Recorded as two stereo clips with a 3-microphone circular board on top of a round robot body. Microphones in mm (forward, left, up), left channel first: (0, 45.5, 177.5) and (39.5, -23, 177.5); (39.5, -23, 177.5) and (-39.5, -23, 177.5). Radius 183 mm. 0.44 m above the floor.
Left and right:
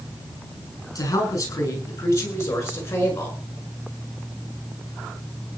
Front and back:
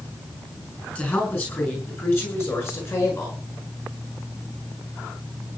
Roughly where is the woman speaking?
Left.